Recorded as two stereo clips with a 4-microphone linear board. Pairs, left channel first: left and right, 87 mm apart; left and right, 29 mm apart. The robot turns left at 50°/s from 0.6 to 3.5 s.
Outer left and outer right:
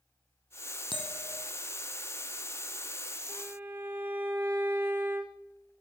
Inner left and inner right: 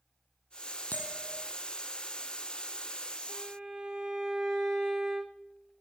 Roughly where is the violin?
Centre.